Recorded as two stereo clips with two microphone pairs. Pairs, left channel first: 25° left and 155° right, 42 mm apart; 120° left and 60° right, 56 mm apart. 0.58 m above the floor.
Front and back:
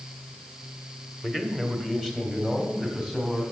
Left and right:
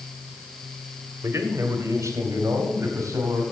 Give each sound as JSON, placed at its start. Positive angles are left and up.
{"t": 1.2, "sound": "a man speaking", "azimuth_deg": -70, "distance_m": 1.6}